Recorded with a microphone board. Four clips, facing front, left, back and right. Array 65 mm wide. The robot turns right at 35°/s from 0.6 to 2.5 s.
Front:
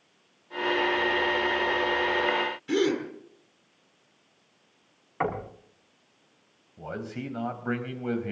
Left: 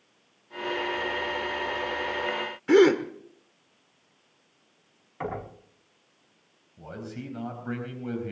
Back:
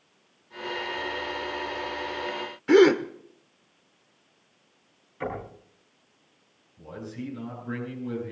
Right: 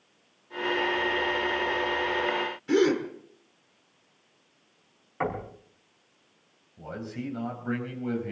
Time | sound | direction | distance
2.7 | a gasp | 140° left | 1.3 m
5.2 | knocking | 25° right | 5 m
6.8 | a man speaking | 5° right | 4 m